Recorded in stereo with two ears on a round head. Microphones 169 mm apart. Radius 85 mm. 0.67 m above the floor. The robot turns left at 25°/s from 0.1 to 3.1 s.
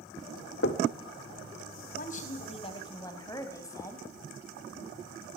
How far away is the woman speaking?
About 3.5 m.